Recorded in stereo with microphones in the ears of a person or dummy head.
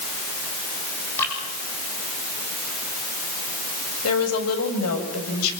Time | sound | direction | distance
1.2 | dripping | 10° left (ahead or behind) | 7.5 m
4.0 | a woman speaking | 85° left | 6.5 m